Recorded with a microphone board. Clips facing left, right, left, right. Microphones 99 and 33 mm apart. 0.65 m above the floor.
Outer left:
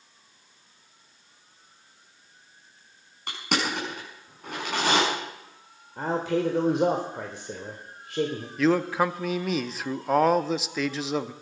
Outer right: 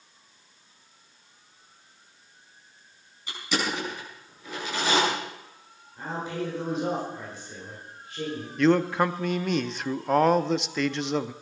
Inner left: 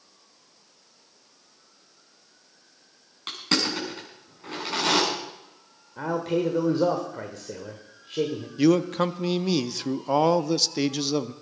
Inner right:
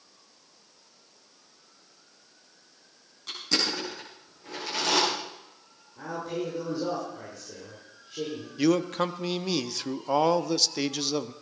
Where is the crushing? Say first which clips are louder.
Outer left 1 dB, inner left 2 dB; 60° left (ahead or behind), 6 m.